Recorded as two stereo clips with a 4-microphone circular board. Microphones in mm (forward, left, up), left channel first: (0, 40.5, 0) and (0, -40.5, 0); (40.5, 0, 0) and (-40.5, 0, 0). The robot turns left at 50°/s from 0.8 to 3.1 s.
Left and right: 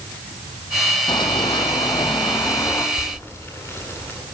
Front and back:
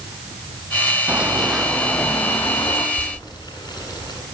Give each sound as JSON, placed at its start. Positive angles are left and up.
{"t": 1.1, "sound": "running footsteps", "azimuth_deg": 105, "distance_m": 4.5}
{"t": 3.0, "sound": "boiling", "azimuth_deg": 35, "distance_m": 9.5}